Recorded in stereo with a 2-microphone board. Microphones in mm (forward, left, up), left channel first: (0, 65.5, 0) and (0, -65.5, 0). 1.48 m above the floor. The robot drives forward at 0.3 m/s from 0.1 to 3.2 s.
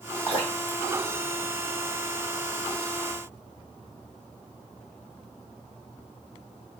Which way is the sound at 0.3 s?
15° left (ahead or behind).